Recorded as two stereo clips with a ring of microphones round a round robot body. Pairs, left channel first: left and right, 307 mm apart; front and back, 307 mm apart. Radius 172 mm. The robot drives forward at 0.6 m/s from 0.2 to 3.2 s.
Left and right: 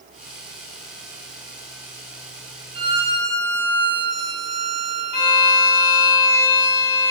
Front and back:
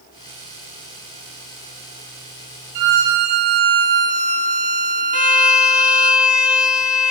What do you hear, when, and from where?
2.8 s a violin: 165° right, 1.7 m
5.1 s a violin: 95° left, 3 m